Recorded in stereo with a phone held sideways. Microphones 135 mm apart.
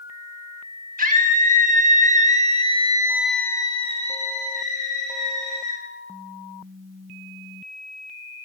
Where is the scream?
75° right (ahead or behind), 2 m; by 5.8 s 75° left (ahead or behind), 2 m.